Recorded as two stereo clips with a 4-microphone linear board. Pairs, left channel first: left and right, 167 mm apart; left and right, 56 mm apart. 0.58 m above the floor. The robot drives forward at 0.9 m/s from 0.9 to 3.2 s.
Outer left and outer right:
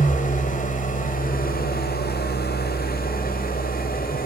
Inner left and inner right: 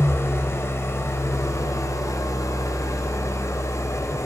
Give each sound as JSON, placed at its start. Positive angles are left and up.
{"t": 0.0, "sound": "an engine running", "side_deg": 50, "distance_m": 2.0}